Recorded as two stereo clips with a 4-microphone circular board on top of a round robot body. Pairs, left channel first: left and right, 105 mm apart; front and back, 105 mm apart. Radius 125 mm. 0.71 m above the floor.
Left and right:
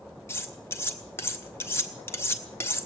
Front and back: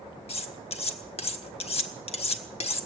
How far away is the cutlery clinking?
About 1.2 m.